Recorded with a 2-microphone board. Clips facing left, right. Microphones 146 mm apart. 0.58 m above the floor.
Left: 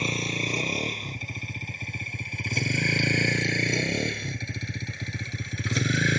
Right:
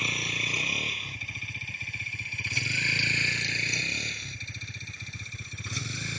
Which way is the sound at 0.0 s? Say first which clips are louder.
Left 7 dB; 35° left (ahead or behind).